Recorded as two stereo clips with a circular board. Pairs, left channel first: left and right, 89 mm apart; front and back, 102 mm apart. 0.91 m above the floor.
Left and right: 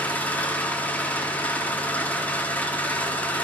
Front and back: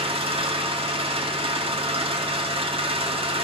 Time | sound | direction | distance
0.0 | an engine running | 160° left | 1.6 m